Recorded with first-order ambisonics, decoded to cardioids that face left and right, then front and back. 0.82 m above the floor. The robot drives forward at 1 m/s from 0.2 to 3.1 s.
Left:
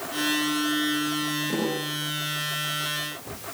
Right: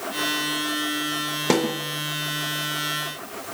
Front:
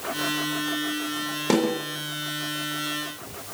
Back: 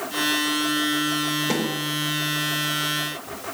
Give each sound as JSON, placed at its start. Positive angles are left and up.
{"t": 1.5, "sound": "a snare drum", "azimuth_deg": -70, "distance_m": 3.5}